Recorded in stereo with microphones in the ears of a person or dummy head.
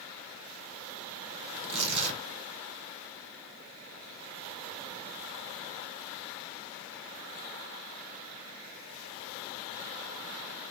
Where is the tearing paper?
65° right (ahead or behind), 1.1 m.